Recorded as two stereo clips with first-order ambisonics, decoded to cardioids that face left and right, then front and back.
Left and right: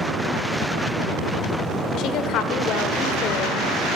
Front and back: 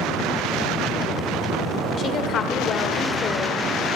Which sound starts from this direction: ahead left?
A woman speaking, at 2.0 s.